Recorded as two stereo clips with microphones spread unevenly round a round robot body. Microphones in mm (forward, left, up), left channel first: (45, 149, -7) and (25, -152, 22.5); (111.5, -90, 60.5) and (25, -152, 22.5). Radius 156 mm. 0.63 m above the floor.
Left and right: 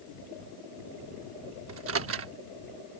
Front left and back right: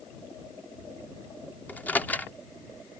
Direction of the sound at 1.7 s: 50° right.